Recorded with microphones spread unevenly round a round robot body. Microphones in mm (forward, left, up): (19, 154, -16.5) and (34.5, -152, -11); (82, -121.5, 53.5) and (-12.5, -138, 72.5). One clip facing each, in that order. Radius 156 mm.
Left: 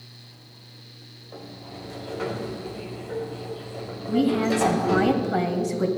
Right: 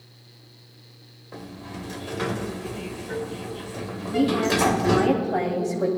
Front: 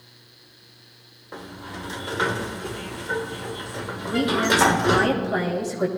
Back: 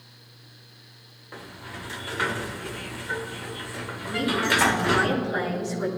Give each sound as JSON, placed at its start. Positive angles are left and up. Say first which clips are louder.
{"t": 1.3, "sound": "a sliding door", "louder": "right 3 dB, front 4 dB", "azimuth_deg": -45, "distance_m": 1.3}
{"t": 4.1, "sound": "a woman speaking", "louder": "left 1 dB, front 4 dB", "azimuth_deg": 40, "distance_m": 2.5}